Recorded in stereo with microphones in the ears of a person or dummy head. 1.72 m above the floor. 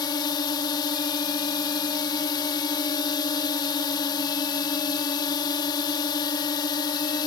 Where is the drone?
30° left (ahead or behind).